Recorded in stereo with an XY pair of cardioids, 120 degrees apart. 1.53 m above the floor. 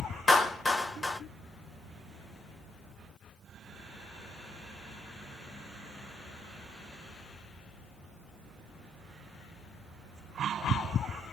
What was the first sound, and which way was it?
A clap, 10° left.